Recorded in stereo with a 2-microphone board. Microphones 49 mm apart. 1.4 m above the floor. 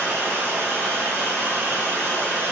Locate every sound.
0.0 s running water: 60° right (ahead or behind), 1.2 m